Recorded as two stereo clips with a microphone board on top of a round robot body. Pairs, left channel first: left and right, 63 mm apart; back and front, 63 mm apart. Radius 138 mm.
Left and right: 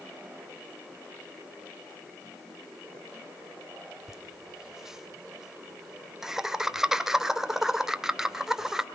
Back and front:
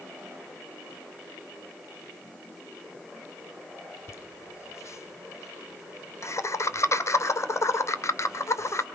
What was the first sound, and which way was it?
Laughter, 170° right.